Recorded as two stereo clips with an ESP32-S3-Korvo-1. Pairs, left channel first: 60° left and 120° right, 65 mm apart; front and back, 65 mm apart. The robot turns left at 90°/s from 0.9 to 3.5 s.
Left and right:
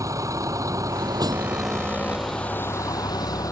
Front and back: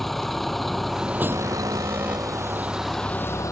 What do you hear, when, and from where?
0.0 s a vehicle: 85° right; by 3.5 s 35° left
1.3 s an alarm: 175° right; by 2.7 s 55° left